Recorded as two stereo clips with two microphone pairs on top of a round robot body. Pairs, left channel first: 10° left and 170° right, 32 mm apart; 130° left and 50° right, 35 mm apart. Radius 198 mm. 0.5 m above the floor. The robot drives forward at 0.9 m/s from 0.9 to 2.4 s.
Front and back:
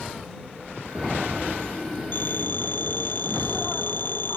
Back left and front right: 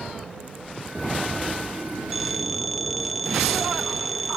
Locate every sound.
2.1 s a phone ringing: 35° left